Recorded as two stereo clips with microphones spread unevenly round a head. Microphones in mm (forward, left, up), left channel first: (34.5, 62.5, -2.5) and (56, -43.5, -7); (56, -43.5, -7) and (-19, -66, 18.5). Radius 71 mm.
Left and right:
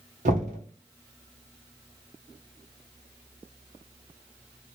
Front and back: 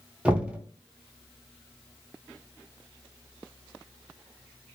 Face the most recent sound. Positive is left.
turn(degrees=-95)